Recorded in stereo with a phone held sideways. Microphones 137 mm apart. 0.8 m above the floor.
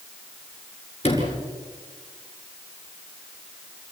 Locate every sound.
1.0 s a sliding door: 45° left (ahead or behind), 7.5 m